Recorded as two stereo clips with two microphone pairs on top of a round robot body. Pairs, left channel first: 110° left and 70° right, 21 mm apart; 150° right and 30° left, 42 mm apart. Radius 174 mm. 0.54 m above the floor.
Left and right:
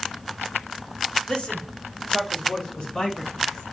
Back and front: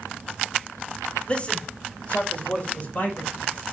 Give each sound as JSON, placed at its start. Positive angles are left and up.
{"t": 1.3, "sound": "a man speaking", "azimuth_deg": 150, "distance_m": 2.5}